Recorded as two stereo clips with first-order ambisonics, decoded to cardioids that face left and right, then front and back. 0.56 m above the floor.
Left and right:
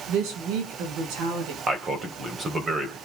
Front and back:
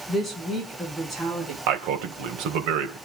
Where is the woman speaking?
95° right, 6.5 m; by 1.6 s 100° right, 7 m.